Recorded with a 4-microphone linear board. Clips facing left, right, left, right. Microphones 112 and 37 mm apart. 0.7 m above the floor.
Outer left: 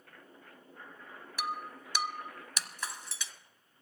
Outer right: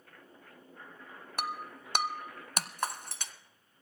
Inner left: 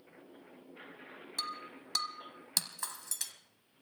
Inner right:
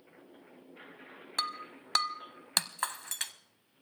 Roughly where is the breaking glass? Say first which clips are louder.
Even, inner right 5 dB; right.